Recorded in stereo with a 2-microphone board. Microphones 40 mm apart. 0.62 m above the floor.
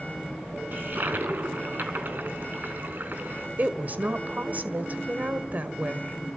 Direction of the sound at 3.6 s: 45° right (ahead or behind).